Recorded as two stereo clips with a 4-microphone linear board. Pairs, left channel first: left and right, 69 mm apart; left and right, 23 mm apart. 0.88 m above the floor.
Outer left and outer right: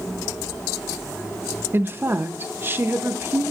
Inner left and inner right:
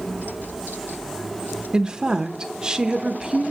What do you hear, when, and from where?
1.7 s a woman speaking: 30° right (ahead or behind), 0.8 m